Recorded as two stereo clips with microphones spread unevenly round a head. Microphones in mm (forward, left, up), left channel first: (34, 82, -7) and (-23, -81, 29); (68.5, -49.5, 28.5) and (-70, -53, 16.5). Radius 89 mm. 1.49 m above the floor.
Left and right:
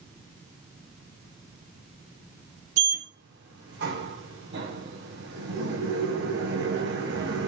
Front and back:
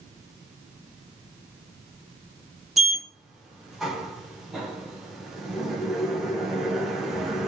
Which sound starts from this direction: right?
A sliding door, at 2.8 s.